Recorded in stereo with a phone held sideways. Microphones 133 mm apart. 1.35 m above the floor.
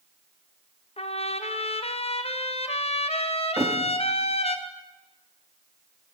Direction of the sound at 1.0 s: 50° left (ahead or behind).